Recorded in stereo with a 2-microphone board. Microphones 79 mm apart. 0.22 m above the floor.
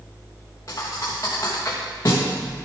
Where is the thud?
40° left (ahead or behind), 3 m.